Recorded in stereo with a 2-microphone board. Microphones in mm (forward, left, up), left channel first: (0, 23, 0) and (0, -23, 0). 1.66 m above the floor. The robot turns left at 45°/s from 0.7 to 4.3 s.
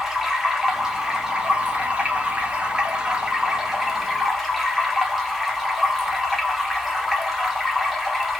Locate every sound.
0.0 s running water: 10° right (ahead or behind), 0.8 m; by 8.4 s centre (ahead or behind), 0.8 m